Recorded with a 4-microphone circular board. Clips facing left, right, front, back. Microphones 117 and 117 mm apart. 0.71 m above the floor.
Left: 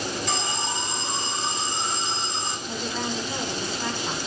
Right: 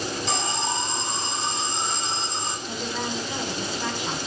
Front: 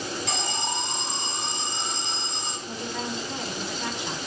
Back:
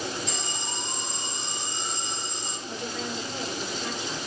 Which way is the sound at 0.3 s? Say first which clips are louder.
Right 2 dB, front 5 dB; 30° right.